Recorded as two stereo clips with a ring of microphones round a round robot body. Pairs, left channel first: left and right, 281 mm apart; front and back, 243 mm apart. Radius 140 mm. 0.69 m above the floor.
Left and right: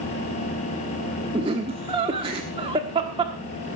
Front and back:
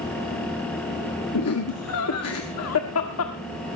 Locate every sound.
1.3 s laughter: 20° right, 1.3 m